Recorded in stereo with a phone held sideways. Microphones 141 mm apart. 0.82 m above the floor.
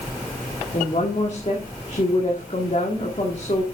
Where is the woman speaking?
50° left (ahead or behind), 1.7 m.